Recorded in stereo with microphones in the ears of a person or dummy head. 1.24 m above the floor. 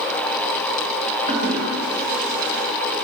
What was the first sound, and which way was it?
A toilet flushing, 50° right (ahead or behind).